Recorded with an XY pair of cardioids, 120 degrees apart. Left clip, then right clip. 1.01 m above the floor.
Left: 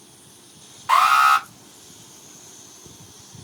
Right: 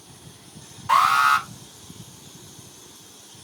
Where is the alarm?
40° left, 2.5 m.